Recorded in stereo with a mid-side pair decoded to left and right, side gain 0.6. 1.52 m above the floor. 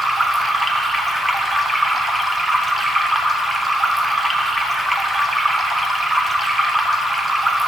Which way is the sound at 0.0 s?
10° right.